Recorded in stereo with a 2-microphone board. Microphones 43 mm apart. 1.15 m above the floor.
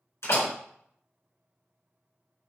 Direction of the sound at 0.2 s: 85° left.